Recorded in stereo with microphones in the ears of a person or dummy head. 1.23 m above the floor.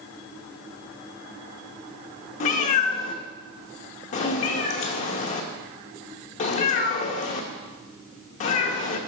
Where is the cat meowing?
45° left (ahead or behind), 0.8 m.